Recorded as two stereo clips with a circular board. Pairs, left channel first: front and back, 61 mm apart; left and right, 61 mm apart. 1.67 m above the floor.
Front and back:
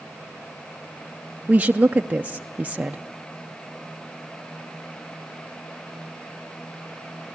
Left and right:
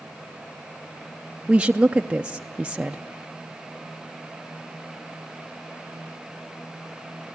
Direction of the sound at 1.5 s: 140° right.